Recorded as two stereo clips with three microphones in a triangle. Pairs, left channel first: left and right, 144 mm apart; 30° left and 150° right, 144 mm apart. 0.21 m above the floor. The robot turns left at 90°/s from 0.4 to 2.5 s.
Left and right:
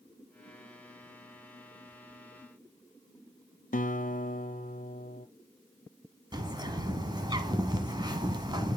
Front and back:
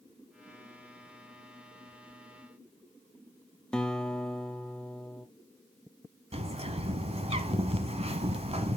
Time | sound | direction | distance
3.7 | a guitar | 115° left | 1.0 m
6.3 | a bird | 140° right | 1.4 m